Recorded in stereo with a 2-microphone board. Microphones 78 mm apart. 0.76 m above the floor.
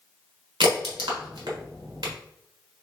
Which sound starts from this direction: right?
A crack, at 0.6 s.